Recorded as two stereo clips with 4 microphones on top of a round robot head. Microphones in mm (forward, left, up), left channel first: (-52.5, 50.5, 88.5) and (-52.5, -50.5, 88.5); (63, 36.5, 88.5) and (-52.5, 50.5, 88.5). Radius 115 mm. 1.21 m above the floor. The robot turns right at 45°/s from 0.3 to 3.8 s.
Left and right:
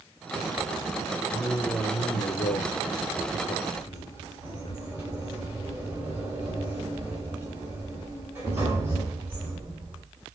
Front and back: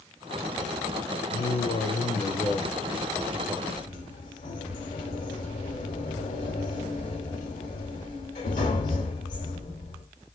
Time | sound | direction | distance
1.3 | a man speaking | 15° left | 0.9 m
3.8 | a sliding door | 15° right | 1.1 m